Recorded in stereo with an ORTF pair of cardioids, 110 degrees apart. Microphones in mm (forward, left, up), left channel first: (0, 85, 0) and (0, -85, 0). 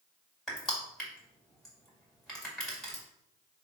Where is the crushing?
Straight ahead, 1.8 m.